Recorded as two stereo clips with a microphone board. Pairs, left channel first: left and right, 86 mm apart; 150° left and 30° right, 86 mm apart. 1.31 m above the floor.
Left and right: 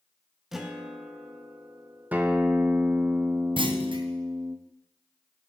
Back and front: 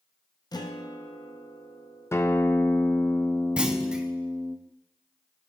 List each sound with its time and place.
0.5 s a guitar: 175° right, 0.9 m
2.1 s a guitar: 160° right, 0.7 m
3.6 s a clunk: 110° right, 0.8 m